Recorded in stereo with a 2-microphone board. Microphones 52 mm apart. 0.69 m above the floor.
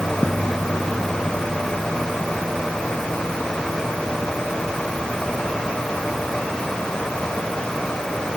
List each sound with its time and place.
Only background noise.